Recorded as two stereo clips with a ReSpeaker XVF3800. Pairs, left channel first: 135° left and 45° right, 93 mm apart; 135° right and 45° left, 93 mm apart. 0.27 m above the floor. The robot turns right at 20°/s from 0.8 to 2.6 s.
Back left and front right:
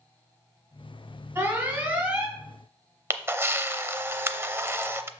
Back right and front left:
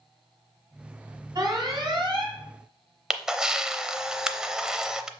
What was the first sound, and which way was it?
An alarm, 15° left.